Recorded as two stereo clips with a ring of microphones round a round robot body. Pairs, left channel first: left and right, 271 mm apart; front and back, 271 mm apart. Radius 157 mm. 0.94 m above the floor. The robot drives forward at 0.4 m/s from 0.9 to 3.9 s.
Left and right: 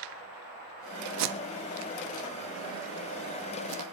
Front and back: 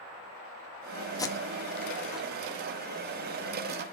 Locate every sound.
1.2 s tape being pulled: 75° right, 1.7 m; by 3.8 s 115° right, 1.8 m